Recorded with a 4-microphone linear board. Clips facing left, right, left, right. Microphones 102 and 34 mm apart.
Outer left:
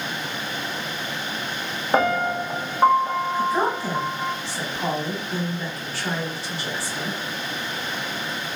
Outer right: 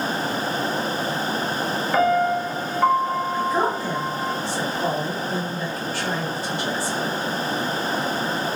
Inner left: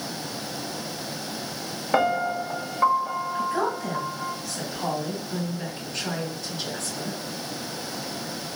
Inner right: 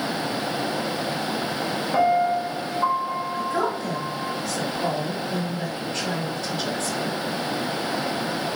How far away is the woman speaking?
About 1.9 m.